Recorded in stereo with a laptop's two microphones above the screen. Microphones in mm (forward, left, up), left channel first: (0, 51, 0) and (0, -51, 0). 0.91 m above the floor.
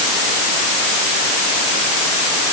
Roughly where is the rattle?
I don't hear a rattle.